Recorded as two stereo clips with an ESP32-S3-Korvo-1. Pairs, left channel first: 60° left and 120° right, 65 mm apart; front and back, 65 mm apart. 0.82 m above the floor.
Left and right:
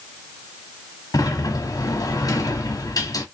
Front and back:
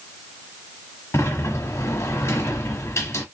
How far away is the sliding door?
About 1.1 m.